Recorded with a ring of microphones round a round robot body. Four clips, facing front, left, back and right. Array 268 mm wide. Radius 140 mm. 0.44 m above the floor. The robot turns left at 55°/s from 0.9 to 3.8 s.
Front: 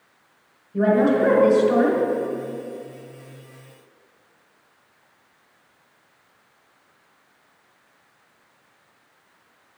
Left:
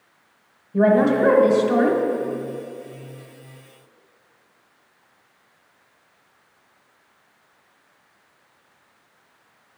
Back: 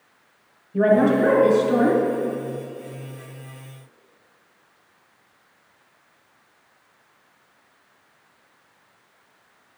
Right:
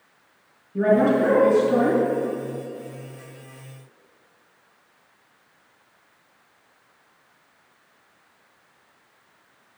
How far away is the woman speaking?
About 1.7 m.